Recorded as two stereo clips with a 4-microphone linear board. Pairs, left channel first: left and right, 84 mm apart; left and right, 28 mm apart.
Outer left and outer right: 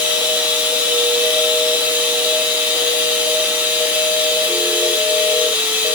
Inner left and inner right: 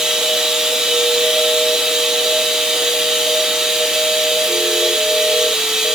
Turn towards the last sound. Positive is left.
turn(degrees=-25)  # may be behind; listen again after turning